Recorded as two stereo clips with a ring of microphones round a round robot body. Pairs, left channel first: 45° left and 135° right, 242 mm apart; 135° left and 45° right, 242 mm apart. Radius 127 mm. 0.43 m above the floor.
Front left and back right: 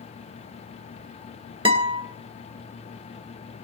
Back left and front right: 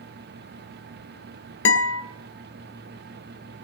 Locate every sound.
1.6 s a guitar: 160° left, 2 m